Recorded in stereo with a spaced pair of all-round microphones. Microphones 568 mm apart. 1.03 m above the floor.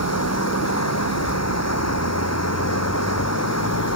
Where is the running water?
25° left (ahead or behind).